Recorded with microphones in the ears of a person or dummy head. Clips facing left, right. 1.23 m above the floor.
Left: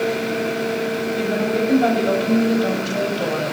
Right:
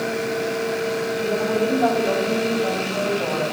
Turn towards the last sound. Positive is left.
turn(degrees=30)  # may be behind; listen again after turning